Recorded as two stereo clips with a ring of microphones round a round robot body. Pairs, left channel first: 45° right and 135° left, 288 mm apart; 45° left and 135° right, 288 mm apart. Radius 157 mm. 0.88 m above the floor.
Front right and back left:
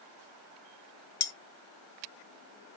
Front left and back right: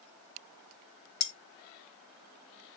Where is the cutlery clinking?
5° left, 0.6 m.